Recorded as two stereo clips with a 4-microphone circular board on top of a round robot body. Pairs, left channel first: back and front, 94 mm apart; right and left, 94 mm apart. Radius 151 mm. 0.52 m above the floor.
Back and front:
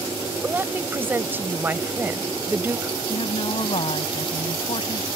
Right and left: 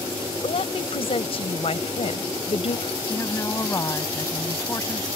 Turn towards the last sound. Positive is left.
turn(degrees=-150)